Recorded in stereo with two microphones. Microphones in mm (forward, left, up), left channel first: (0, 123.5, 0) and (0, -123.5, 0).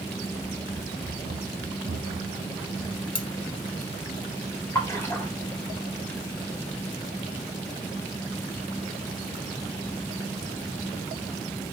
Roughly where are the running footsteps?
Centre.